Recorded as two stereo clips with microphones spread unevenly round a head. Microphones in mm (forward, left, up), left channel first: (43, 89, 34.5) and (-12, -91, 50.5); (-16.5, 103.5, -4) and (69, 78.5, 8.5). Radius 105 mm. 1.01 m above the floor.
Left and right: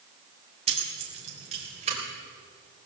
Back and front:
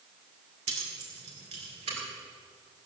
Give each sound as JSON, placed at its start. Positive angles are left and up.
{"t": 0.7, "sound": "keys jangling", "azimuth_deg": -45, "distance_m": 2.5}